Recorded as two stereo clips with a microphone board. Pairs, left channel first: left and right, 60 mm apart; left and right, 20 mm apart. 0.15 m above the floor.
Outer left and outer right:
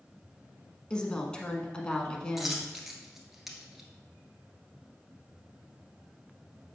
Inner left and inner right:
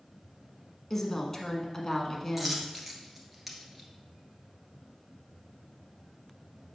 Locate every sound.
0.9 s a woman speaking: 15° left (ahead or behind), 1.1 m
2.4 s a dropped coin: 5° right (ahead or behind), 1.2 m